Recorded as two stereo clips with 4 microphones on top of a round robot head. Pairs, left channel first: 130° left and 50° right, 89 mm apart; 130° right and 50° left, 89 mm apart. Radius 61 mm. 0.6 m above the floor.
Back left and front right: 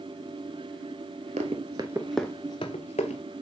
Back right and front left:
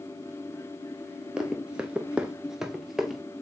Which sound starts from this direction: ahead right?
Running footsteps, at 1.4 s.